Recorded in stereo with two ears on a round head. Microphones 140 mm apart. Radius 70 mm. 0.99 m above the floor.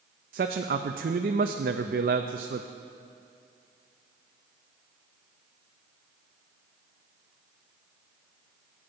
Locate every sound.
0.3 s a man speaking: 60° right (ahead or behind), 0.6 m